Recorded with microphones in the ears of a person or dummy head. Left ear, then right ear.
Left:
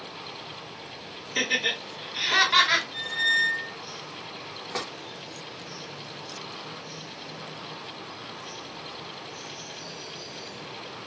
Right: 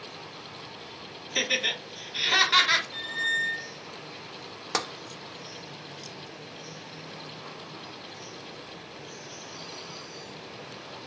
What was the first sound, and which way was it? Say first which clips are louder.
Laughter: left 1 dB; 15° right (ahead or behind).